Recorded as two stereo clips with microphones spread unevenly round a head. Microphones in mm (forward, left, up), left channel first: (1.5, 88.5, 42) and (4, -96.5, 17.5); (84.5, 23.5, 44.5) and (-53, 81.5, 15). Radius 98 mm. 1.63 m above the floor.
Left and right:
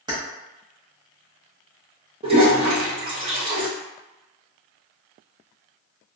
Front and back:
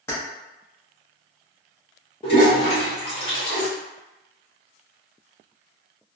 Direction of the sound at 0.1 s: 25° right.